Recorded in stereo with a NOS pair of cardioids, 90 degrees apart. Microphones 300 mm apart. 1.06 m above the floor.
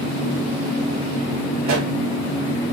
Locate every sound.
1.6 s a pop: 60° right, 1.0 m